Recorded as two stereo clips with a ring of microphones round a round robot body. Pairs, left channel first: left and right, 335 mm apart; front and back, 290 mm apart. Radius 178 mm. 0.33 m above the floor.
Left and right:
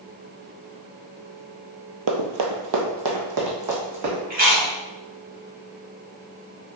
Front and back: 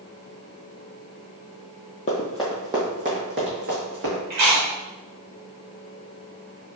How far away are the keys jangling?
No keys jangling in this recording.